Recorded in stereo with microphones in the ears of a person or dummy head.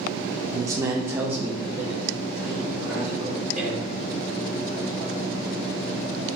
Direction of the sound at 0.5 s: 25° right (ahead or behind).